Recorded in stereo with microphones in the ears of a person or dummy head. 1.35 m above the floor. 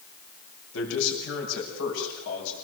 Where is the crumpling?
No crumpling in this recording.